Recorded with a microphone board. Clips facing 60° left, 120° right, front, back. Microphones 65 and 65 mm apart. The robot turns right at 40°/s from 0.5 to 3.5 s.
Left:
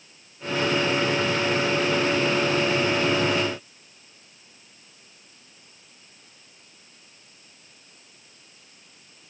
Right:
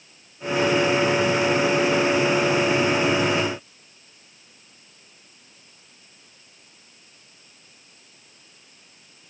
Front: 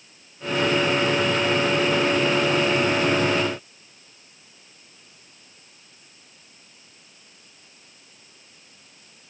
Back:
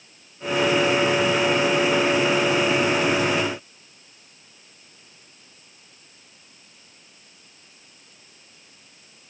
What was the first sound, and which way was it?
Only background noise.